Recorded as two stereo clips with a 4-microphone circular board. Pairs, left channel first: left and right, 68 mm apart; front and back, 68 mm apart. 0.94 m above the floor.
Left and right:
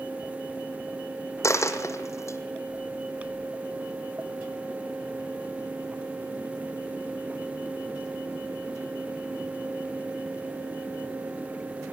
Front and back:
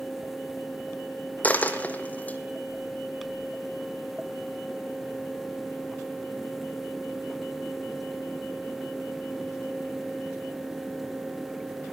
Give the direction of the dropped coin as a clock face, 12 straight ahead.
10 o'clock.